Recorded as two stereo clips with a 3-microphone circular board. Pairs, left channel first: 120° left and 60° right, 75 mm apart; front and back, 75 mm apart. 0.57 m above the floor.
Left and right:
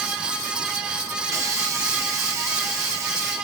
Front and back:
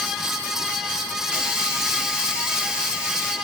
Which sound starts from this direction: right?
A hiss, at 1.3 s.